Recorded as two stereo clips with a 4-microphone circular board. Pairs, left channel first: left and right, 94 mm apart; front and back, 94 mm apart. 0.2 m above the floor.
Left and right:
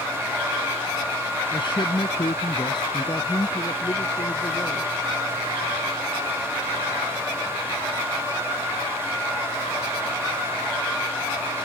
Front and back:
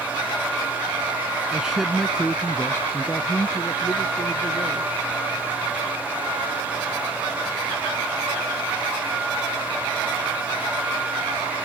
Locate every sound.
1.5 s a man speaking: 100° left; by 4.9 s 40° left